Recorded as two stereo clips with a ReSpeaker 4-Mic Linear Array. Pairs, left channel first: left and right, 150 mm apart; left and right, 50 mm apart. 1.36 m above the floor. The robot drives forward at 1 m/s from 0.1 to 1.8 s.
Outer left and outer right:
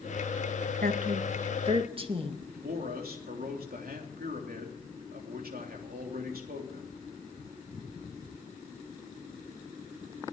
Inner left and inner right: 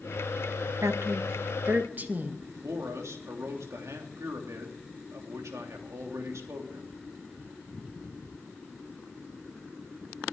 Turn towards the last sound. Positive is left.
turn(degrees=-85)